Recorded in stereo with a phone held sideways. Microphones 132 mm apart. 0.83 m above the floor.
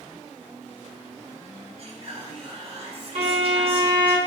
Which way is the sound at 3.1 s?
65° right (ahead or behind).